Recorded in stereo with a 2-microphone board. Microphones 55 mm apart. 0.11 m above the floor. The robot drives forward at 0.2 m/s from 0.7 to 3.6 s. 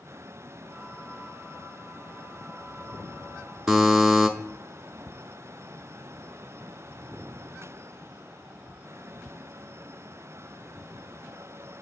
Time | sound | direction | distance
3.7 | a buzzer | 10° right (ahead or behind) | 0.7 m